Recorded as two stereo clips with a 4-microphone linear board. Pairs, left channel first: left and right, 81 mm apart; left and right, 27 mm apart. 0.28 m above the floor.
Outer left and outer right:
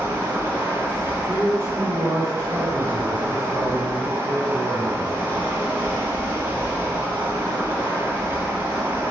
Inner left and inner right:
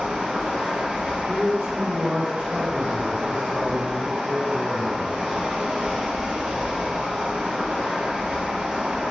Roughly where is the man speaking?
Right.